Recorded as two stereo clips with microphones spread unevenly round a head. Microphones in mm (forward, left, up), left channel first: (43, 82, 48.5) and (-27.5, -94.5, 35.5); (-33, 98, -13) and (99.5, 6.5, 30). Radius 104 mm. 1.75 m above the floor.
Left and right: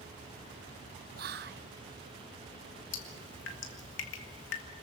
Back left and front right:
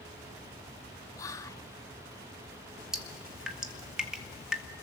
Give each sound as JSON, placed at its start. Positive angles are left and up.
{"t": 1.2, "sound": "whispering", "azimuth_deg": -130, "distance_m": 0.6}
{"t": 2.9, "sound": "dripping", "azimuth_deg": 45, "distance_m": 2.5}